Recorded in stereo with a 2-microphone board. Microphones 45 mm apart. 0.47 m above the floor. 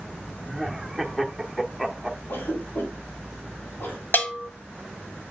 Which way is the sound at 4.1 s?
50° left (ahead or behind).